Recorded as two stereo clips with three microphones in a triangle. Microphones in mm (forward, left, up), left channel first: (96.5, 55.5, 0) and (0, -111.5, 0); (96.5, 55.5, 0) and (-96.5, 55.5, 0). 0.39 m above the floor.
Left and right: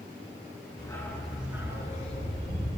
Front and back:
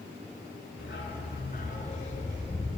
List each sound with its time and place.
0.8 s a dog barking: 10° right, 1.9 m; by 2.7 s 65° right, 3.5 m